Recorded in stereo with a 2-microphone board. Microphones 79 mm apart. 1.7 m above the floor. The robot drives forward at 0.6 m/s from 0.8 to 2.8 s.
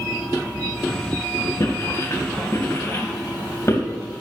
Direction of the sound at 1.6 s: 45° left (ahead or behind).